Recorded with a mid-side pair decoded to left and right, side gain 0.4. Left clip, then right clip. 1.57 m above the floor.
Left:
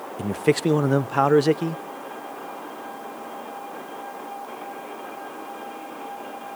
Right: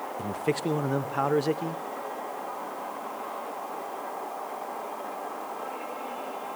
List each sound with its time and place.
0.2 s a man speaking: 55° left, 0.5 m